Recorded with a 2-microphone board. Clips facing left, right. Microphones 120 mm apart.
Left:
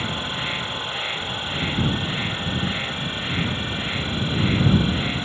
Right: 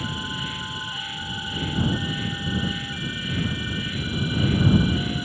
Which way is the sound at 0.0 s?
65° left (ahead or behind).